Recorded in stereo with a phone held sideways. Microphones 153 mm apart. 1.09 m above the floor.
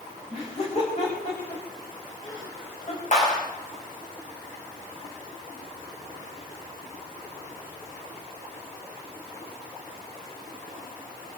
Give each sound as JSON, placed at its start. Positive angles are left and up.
{"t": 0.3, "sound": "laughter", "side_deg": 45, "distance_m": 5.0}
{"t": 3.1, "sound": "a clap", "side_deg": 55, "distance_m": 6.0}